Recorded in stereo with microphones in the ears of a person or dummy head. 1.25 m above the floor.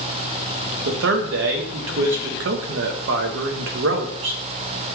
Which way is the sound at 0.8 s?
60° right (ahead or behind).